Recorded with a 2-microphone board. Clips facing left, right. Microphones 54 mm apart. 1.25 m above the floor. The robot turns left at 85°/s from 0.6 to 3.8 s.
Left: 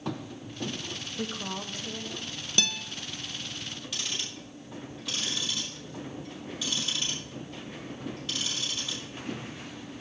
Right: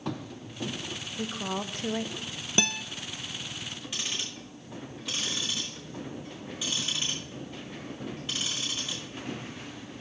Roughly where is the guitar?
Right.